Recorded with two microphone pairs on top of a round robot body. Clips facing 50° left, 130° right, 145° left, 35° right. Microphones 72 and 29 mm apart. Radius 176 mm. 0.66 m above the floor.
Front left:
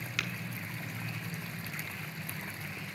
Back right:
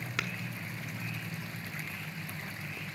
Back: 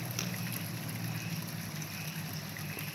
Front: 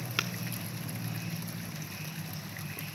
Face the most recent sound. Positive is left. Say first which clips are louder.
# back right 1 dB, front 8 dB
turn(degrees=-75)